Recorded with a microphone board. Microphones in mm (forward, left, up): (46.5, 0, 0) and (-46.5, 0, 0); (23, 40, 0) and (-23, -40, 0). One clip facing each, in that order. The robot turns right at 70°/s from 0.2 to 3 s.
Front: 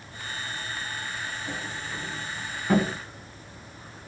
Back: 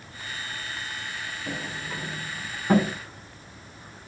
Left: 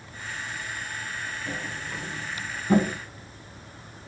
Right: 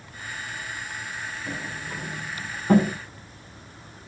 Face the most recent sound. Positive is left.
turn(degrees=-80)